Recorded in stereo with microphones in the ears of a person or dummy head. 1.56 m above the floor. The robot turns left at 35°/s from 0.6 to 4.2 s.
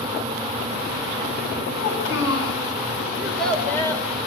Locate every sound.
1.8 s a child speaking: 85° left, 8.5 m; by 2.6 s 70° left (ahead or behind), 8.5 m
3.2 s a child speaking: 175° right, 4.5 m; by 4.0 s 155° left, 4.5 m